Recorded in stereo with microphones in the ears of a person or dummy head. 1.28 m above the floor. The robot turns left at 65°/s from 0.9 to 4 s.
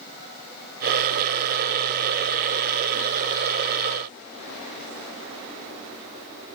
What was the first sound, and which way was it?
Only background noise.